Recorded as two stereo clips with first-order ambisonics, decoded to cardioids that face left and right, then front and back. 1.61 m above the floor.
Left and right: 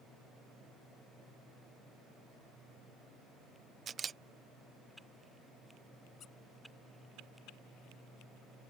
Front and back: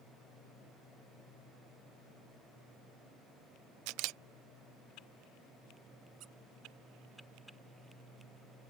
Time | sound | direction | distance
3.9 | a camera shutter | 160° right | ?
6.2 | a squeak | 145° left | ?